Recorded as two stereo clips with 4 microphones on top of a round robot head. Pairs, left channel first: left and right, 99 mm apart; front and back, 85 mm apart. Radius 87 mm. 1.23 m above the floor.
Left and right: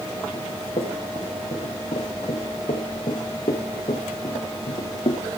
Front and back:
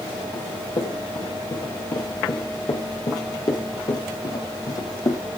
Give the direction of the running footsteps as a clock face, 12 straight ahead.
11 o'clock.